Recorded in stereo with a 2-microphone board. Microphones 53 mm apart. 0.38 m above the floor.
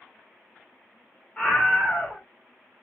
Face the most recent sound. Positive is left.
turn(degrees=20)  # may be behind; listen again after turning